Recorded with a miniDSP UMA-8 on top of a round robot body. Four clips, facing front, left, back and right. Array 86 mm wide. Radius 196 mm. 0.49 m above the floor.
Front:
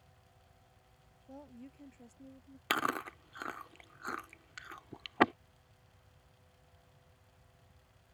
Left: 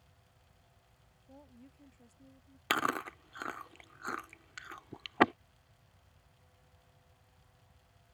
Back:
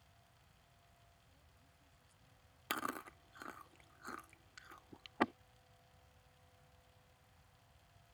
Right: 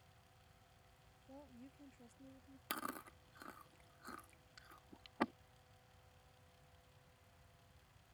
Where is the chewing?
55° left.